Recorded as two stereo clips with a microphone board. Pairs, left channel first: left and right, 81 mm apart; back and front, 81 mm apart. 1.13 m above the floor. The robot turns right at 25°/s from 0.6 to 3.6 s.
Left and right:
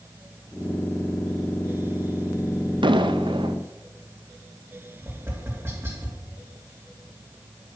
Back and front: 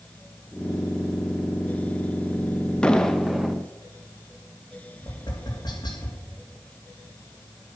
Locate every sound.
2.8 s an explosion: 100° right, 0.7 m; by 3.6 s 85° right, 0.7 m
5.0 s tapping: 150° right, 2.5 m